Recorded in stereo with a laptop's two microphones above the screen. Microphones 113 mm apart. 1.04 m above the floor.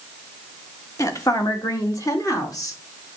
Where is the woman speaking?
30° left (ahead or behind), 1.4 m; by 2.8 s 35° left (ahead or behind), 2.5 m.